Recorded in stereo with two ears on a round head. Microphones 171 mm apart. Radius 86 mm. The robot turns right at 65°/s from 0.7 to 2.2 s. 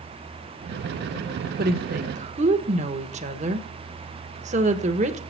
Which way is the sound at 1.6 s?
50° right (ahead or behind).